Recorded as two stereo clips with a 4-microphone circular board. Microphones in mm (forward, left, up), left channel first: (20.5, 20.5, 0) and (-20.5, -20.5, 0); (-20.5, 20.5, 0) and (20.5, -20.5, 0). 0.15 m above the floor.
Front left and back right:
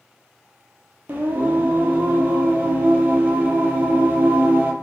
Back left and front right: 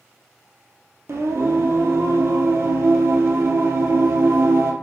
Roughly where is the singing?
Right.